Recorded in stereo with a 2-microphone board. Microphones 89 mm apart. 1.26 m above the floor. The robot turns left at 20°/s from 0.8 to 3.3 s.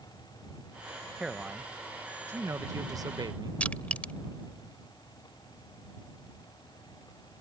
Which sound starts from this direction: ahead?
A man speaking, at 1.2 s.